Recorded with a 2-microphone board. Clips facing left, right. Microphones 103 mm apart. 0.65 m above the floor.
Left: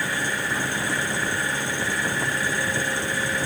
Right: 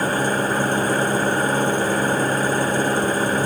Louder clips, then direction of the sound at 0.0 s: Right 7 dB; 45° right (ahead or behind).